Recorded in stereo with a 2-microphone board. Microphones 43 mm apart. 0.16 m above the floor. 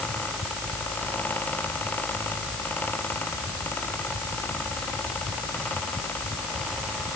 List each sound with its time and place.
Only background noise.